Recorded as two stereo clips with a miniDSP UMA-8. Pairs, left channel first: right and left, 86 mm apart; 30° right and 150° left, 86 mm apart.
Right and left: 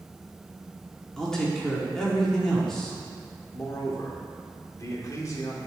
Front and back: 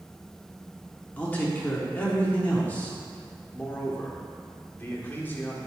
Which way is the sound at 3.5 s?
85° right.